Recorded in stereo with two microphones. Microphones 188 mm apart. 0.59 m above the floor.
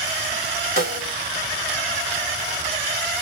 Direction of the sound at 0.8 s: 45° right (ahead or behind).